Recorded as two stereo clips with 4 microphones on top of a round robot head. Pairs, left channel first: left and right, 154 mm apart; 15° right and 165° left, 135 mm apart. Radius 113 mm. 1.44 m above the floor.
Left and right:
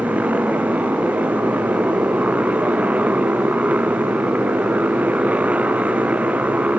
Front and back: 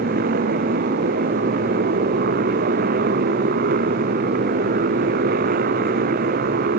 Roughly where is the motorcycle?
Behind.